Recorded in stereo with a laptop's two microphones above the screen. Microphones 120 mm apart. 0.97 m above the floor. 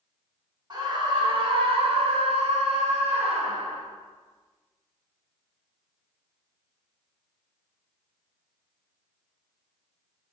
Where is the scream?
40° right (ahead or behind), 1.5 m; by 3.8 s 65° right (ahead or behind), 2 m.